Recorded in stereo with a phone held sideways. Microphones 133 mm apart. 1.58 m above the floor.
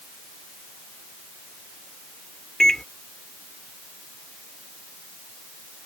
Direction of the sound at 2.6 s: 5° left (ahead or behind).